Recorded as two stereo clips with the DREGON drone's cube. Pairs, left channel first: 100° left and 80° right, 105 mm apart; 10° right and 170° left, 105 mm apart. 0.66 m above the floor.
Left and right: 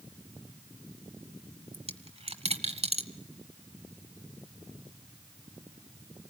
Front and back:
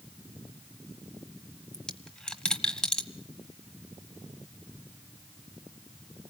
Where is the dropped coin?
95° right, 1.4 m.